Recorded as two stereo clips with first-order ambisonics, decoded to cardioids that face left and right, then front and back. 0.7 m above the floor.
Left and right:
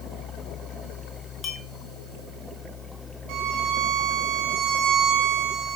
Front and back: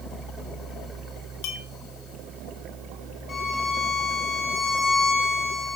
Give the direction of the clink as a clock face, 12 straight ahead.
11 o'clock.